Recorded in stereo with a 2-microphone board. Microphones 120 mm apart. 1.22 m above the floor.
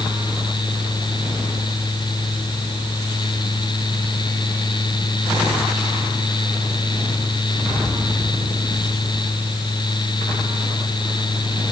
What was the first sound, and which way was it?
Only background noise.